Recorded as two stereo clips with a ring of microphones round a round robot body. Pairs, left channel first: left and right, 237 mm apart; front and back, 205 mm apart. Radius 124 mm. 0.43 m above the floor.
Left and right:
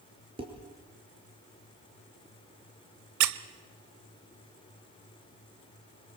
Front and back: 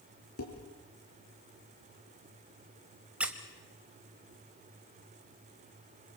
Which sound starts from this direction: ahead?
Dishes clattering, at 0.4 s.